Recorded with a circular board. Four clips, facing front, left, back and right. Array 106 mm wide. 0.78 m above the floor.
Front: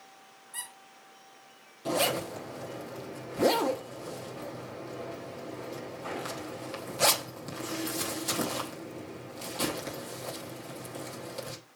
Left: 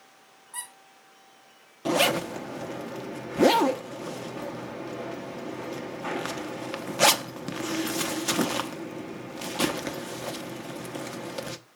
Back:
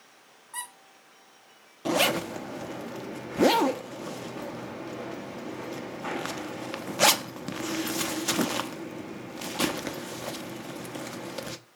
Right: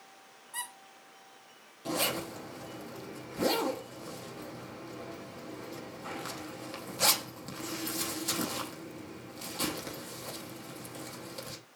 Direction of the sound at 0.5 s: 170° left.